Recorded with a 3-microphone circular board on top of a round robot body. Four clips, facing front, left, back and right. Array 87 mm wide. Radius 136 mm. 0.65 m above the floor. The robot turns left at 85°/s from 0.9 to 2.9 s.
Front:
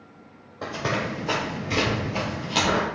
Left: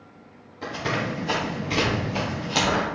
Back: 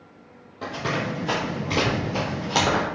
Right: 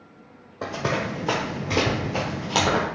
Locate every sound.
0.6 s running footsteps: 90° right, 1.1 m; by 2.9 s 140° right, 0.9 m